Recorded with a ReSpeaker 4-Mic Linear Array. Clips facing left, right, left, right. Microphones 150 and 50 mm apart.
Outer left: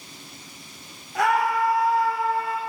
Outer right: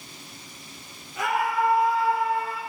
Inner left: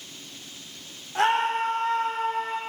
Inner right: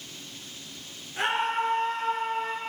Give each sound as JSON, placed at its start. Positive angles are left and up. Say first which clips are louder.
{"t": 1.1, "sound": "a scream", "louder": "outer left 3 dB, inner left 4 dB", "side_deg": 80, "distance_m": 8.0}